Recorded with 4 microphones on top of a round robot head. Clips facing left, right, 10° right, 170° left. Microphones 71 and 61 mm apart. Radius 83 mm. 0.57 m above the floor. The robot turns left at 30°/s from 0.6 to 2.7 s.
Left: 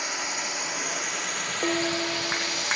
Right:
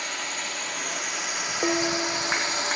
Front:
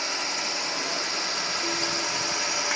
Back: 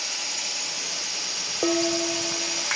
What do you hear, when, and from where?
0.0 s a drone: 15° left; by 2.8 s 50° right
1.6 s dishes clattering: 170° right; by 2.7 s 160° left